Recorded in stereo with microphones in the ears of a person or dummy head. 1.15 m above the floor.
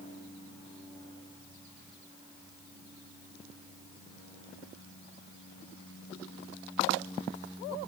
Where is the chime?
No chime in this recording.